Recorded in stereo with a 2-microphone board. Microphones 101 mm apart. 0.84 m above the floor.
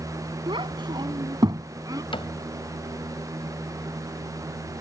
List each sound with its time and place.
0.5 s a child speaking: 55° right (ahead or behind); by 2.0 s 35° right (ahead or behind)
2.1 s a cupboard door: 60° left (ahead or behind)